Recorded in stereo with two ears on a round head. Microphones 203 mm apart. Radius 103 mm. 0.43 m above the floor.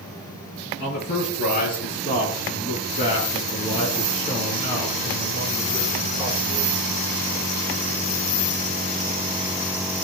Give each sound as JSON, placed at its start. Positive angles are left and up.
{"t": 0.8, "sound": "a man speaking", "side_deg": 45, "distance_m": 6.0}